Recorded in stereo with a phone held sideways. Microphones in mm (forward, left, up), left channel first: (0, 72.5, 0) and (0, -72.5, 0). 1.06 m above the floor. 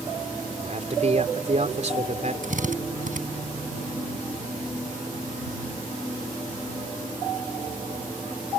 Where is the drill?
65° right (ahead or behind).